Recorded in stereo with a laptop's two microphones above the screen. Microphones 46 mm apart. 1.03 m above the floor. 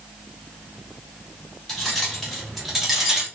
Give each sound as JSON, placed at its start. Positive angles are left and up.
{"t": 1.7, "sound": "keys jangling", "side_deg": 10, "distance_m": 1.6}